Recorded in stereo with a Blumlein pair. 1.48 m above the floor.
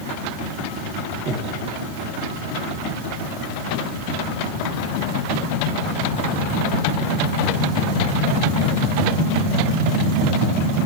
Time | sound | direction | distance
1.3 | breathing | 20° right | 1.5 m